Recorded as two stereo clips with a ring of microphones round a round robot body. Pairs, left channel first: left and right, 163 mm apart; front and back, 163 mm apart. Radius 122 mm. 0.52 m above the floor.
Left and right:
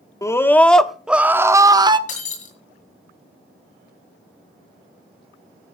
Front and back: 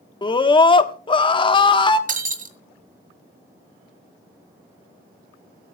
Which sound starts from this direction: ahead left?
A scream, at 0.2 s.